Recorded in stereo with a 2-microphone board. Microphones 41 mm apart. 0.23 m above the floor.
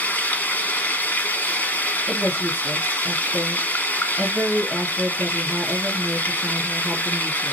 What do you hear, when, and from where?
0.0 s running water: 40° left (ahead or behind), 1.0 m
2.1 s a woman speaking: 10° right (ahead or behind), 2.5 m